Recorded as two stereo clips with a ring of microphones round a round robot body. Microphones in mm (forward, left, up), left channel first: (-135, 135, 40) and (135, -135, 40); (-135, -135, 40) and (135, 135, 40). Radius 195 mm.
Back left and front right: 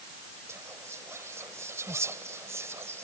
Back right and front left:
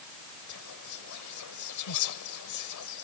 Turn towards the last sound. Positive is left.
turn(degrees=-125)